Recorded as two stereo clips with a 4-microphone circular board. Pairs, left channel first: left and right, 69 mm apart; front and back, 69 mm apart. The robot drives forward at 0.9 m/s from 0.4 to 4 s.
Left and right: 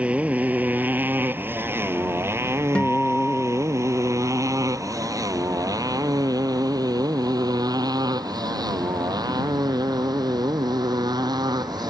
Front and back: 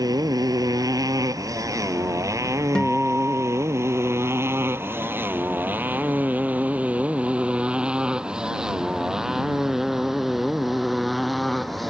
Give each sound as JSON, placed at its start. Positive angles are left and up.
{"t": 0.0, "sound": "a motorcycle", "azimuth_deg": -160}
{"t": 2.8, "sound": "a guitar", "azimuth_deg": 55}